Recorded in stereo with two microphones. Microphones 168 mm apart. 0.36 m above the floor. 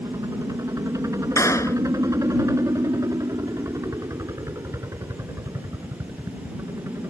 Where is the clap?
20° left (ahead or behind).